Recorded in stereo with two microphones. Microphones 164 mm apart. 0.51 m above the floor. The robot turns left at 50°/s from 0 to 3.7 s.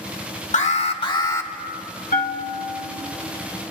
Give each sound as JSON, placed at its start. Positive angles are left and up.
{"t": 0.5, "sound": "an alarm", "azimuth_deg": 60, "distance_m": 1.0}
{"t": 2.1, "sound": "a bell", "azimuth_deg": 95, "distance_m": 1.2}